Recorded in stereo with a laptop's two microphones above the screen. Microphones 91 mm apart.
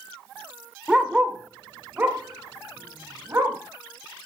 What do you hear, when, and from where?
0.9 s a dog barking: 10° right (ahead or behind), 1.4 m; by 3.6 s 25° right (ahead or behind), 2.5 m